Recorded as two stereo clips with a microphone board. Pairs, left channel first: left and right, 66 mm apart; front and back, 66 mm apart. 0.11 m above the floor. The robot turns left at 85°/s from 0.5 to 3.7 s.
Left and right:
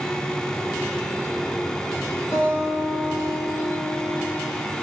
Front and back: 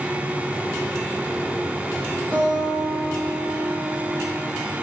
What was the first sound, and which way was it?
A guitar, 65° left.